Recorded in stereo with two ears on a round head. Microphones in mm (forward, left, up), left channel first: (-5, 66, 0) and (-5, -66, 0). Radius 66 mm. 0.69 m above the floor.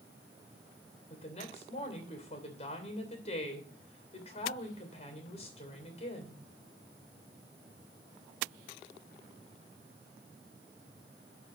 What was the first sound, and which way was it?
A woman speaking, 45° left (ahead or behind).